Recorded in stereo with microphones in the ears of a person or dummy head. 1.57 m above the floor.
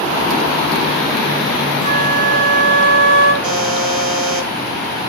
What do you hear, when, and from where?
1.8 s a flute: 65° right (ahead or behind), 9.5 m
3.4 s a buzzer: 45° right (ahead or behind), 3.5 m